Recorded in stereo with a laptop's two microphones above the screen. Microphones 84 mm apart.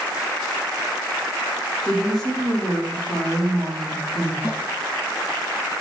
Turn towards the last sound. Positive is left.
turn(degrees=-25)  # may be behind; listen again after turning